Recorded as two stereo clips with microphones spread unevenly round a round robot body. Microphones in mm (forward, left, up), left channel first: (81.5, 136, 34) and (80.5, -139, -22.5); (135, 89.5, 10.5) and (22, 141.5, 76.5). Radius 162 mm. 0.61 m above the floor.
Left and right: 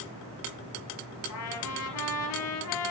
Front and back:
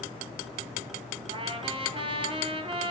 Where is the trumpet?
120° left, 2 m.